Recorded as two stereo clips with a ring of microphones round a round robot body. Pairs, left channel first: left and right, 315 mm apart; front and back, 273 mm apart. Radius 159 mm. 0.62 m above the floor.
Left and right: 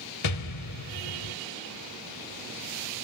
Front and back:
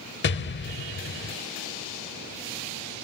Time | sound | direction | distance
0.2 | an explosion | 50° left | 0.8 m